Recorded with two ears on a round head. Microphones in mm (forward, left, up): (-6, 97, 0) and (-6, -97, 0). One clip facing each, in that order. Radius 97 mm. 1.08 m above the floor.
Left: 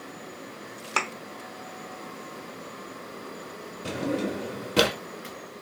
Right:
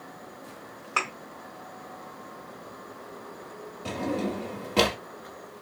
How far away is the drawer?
About 0.7 m.